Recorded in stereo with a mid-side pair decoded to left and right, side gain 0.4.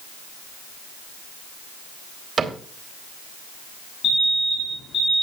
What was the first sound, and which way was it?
A cupboard door, 45° right.